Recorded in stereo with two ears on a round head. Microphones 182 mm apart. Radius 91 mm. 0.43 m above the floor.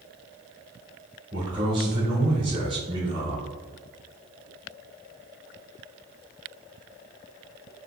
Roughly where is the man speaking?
Right.